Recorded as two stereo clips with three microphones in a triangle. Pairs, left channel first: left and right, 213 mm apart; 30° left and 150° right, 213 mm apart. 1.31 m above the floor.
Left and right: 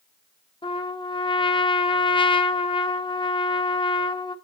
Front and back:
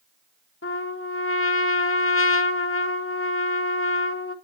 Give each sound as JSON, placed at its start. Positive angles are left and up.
{"t": 0.6, "sound": "a trumpet", "azimuth_deg": 25, "distance_m": 0.8}